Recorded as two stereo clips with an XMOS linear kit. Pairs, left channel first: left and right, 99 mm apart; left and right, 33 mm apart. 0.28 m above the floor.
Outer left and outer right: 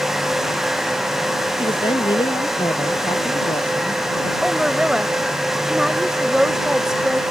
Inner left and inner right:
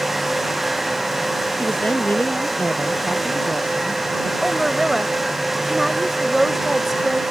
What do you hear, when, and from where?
1.6 s a woman speaking: 55° left (ahead or behind)
4.4 s a woman speaking: 5° right (ahead or behind)